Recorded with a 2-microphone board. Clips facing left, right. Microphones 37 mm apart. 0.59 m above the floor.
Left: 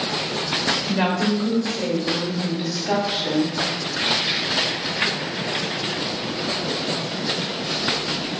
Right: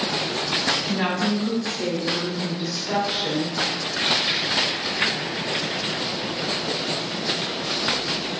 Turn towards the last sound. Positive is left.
turn(degrees=70)  # may be behind; listen again after turning